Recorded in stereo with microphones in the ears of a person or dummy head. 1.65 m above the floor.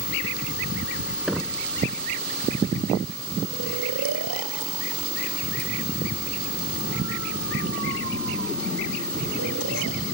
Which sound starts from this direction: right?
Snoring, at 3.5 s.